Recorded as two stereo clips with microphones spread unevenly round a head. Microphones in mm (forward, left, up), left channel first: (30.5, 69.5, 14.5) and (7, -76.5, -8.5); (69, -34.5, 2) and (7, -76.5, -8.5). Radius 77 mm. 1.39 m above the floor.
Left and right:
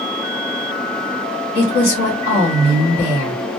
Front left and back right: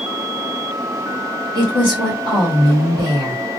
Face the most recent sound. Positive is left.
turn(degrees=135)